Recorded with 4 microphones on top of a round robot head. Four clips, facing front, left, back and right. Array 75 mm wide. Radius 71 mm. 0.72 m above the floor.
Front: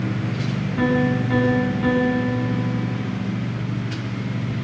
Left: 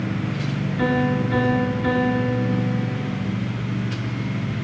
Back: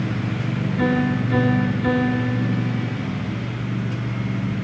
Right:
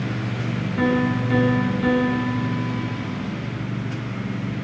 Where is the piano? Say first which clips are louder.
Even, front 1 dB; 45° right, 9 m.